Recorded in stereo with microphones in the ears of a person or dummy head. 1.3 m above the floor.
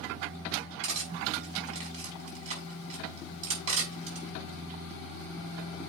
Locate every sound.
0.8 s cutlery clinking: 35° right (ahead or behind), 5 m